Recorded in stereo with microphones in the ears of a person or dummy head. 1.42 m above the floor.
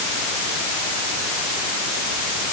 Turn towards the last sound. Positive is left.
No sound to turn to.